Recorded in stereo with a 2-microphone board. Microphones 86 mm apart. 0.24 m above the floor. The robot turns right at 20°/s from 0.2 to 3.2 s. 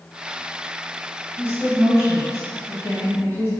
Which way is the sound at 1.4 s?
75° left.